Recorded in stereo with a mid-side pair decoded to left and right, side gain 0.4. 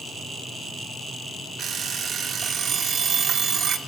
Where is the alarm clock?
55° right, 3 m.